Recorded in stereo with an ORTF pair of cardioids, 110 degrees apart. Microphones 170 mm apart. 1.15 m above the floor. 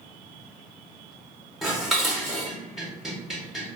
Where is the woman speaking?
No woman speaking in this recording.